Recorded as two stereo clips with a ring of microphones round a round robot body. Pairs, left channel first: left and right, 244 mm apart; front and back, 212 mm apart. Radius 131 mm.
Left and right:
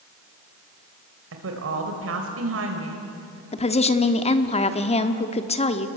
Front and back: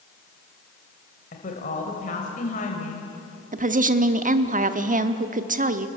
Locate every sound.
1.3 s a woman speaking: 60° right, 2.5 m
3.5 s a woman speaking: 145° left, 1.2 m